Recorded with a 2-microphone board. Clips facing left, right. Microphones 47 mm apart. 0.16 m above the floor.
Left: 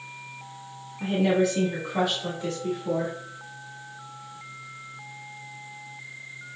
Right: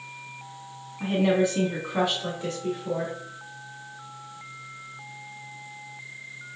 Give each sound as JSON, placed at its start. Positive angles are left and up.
{"t": 1.0, "sound": "a woman speaking", "side_deg": -25, "distance_m": 1.1}